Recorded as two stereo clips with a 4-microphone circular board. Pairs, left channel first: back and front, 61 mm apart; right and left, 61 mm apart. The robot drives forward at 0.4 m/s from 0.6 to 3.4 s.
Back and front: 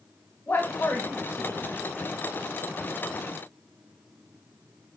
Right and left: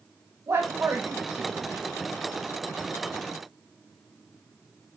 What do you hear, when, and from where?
0.5 s a man speaking: 125° left, 0.8 m; by 1.9 s 145° left, 1.1 m